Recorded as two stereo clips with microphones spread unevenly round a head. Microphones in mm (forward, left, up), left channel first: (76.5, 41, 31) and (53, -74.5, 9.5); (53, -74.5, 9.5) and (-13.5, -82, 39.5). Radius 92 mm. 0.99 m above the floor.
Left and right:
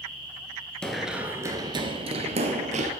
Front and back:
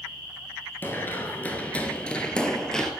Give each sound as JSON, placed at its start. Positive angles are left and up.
{"t": 0.8, "sound": "running footsteps", "azimuth_deg": 105, "distance_m": 1.0}